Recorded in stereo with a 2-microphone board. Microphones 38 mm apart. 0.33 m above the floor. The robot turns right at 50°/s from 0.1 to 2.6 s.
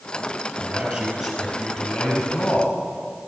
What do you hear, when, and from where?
0.6 s a man speaking: 50° right, 6 m; by 2.7 s 50° left, 6 m